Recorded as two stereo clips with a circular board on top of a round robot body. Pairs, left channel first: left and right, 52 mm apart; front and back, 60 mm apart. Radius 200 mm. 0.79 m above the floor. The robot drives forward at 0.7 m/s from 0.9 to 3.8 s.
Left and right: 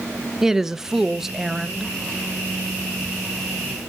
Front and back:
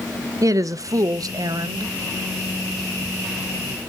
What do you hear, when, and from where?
0.4 s a woman speaking: 175° right, 0.9 m